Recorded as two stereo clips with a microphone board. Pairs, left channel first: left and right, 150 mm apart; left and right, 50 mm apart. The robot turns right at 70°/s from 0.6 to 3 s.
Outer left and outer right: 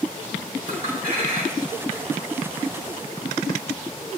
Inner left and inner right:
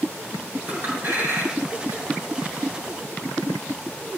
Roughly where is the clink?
Right.